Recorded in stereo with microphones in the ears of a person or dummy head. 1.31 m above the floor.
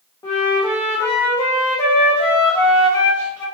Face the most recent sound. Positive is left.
turn(degrees=15)  # may be behind; listen again after turning